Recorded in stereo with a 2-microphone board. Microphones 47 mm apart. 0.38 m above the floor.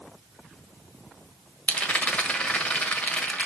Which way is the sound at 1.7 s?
30° left (ahead or behind).